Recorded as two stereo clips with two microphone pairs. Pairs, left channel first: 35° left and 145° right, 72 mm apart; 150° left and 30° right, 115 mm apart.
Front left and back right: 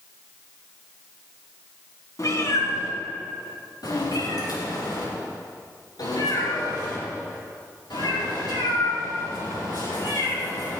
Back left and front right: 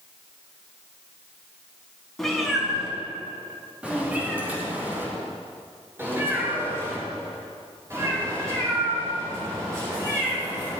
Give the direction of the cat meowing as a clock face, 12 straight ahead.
10 o'clock.